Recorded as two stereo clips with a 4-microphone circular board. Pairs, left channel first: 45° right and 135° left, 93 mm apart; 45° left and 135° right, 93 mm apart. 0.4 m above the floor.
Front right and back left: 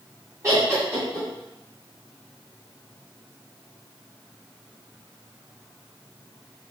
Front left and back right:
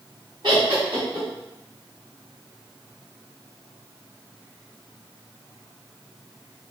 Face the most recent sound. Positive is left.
turn(degrees=-165)